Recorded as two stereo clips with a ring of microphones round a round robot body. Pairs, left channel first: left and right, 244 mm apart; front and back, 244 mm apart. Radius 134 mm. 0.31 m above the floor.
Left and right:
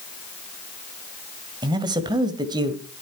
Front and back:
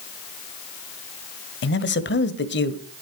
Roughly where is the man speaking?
Ahead.